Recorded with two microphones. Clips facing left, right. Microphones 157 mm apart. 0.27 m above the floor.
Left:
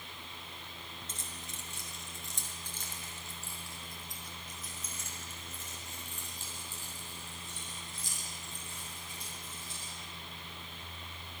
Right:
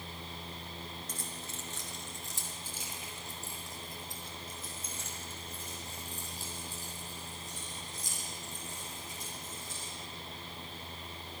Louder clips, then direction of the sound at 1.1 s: Right 4 dB; 25° left (ahead or behind).